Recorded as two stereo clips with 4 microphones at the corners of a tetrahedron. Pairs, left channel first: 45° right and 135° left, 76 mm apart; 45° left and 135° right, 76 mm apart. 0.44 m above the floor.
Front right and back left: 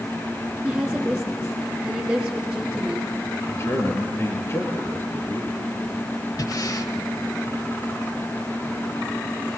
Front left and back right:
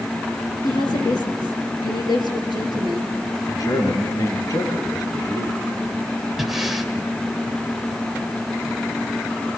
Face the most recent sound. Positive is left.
turn(degrees=-50)